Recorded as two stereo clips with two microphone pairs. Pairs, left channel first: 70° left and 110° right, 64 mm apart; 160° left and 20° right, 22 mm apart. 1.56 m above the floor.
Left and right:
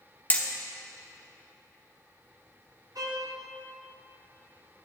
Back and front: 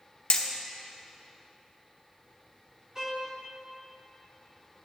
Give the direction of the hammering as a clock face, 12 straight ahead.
8 o'clock.